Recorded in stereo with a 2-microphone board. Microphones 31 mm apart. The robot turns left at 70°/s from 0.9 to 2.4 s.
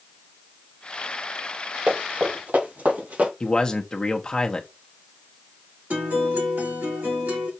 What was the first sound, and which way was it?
Running footsteps, 50° right (ahead or behind).